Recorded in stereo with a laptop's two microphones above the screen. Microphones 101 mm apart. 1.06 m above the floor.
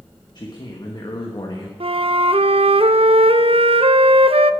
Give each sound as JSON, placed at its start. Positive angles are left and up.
{"t": 0.3, "sound": "a man speaking", "side_deg": 45, "distance_m": 1.3}
{"t": 1.8, "sound": "a flute", "side_deg": -70, "distance_m": 0.5}